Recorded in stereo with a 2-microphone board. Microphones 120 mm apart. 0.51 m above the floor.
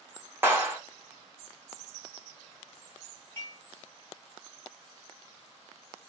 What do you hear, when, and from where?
0.4 s a clap: 20° right (ahead or behind), 1.2 m
3.4 s dishes clattering: 20° left (ahead or behind), 1.7 m